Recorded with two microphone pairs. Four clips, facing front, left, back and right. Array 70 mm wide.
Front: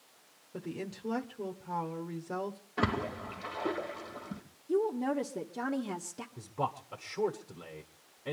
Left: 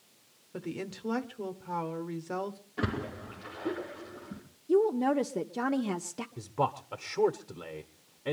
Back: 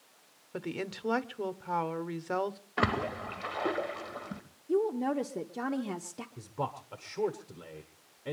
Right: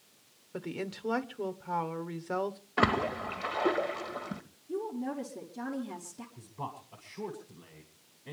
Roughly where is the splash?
Behind right.